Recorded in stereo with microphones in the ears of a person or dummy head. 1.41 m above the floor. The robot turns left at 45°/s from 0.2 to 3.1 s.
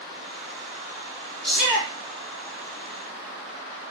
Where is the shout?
10° left (ahead or behind), 1.1 m; by 1.9 s 10° right (ahead or behind), 1.1 m.